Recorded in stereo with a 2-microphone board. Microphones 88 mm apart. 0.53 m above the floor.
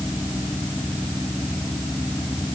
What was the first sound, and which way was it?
Only background noise.